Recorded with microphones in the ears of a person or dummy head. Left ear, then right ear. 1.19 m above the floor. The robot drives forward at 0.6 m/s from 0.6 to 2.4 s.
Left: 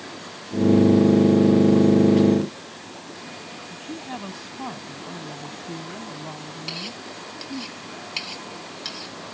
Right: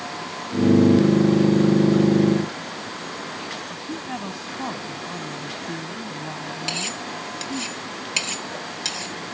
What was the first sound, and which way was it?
A woman speaking, 5° right (ahead or behind).